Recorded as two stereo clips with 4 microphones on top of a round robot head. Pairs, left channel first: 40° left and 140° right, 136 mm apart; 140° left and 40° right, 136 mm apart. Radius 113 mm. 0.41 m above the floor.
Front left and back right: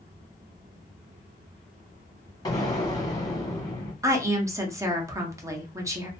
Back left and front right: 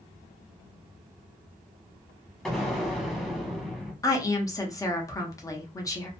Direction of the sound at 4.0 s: 175° left.